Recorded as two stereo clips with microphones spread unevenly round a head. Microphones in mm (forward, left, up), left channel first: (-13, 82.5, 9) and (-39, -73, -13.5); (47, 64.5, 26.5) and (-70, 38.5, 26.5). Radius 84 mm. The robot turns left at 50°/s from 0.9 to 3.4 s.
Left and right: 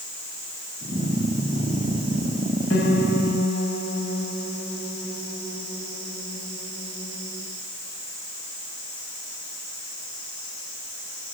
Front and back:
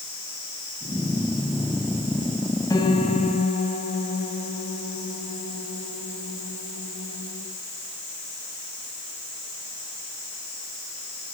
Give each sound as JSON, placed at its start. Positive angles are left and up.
{"t": 2.7, "sound": "a piano", "azimuth_deg": 70, "distance_m": 4.0}